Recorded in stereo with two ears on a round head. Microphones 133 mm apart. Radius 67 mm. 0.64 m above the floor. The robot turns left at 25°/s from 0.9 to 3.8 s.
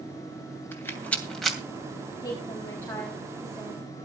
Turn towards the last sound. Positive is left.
turn(degrees=-10)